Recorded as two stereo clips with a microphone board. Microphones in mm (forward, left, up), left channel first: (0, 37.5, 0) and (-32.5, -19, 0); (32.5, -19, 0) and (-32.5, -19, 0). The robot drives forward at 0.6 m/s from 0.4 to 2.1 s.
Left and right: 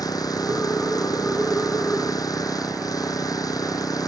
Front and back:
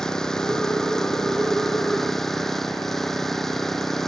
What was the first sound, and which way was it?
An engine running, 80° left.